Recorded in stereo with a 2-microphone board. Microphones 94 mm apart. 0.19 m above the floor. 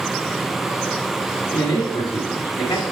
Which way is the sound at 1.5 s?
45° left (ahead or behind).